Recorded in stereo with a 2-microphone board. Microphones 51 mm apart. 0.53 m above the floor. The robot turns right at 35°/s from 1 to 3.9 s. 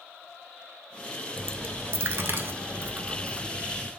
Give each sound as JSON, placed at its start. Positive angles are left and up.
{"t": 1.4, "sound": "a dropped coin", "side_deg": -45, "distance_m": 0.6}